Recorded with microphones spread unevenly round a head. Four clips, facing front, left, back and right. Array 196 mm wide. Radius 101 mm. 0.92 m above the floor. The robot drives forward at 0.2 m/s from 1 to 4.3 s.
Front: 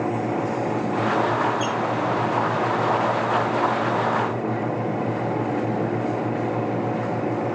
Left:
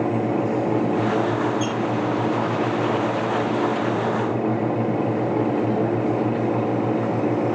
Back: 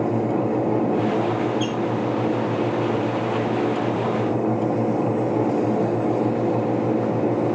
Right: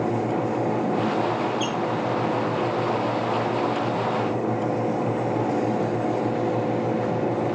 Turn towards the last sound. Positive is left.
turn(degrees=-75)